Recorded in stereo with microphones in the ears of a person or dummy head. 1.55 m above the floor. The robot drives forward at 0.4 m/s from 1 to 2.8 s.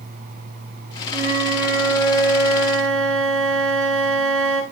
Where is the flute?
85° right, 9.5 m.